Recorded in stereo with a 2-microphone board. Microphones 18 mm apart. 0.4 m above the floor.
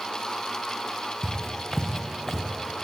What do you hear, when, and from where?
1.2 s footsteps: 5° right (ahead or behind), 2.5 m; by 2.4 s 5° left (ahead or behind), 2 m